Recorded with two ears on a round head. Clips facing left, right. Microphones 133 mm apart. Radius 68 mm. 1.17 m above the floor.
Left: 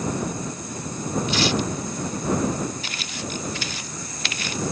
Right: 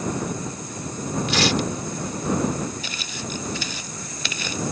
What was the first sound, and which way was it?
Tearing paper, 55° right (ahead or behind).